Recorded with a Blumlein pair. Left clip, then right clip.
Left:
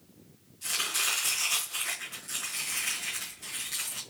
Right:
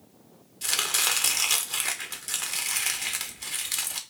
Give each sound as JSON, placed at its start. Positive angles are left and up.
{"t": 0.6, "sound": "chopping", "azimuth_deg": -60, "distance_m": 1.3}